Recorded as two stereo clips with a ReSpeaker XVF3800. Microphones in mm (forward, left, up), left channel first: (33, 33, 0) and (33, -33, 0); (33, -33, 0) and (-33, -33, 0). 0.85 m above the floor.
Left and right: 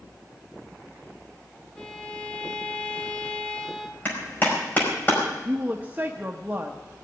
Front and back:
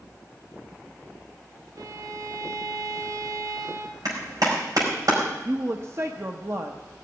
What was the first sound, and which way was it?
A violin, 165° left.